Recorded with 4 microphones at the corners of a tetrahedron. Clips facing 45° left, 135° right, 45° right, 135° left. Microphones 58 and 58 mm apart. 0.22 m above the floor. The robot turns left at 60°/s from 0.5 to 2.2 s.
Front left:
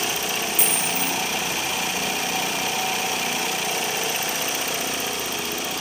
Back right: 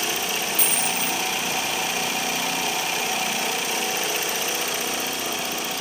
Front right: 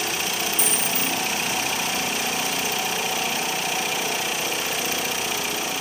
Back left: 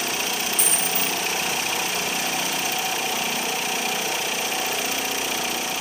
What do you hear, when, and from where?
0.6 s a dropped coin: 120° left, 2 m; by 1.2 s 80° left, 2 m